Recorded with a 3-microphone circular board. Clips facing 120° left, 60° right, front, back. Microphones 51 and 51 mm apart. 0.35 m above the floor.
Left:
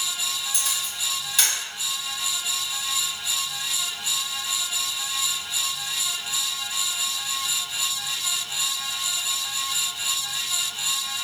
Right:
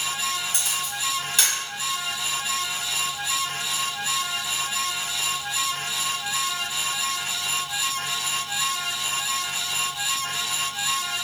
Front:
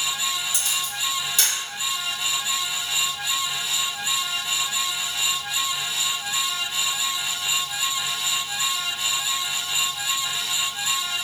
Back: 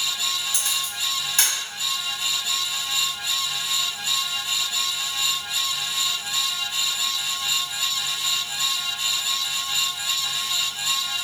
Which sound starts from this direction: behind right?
A camera shutter, at 0.5 s.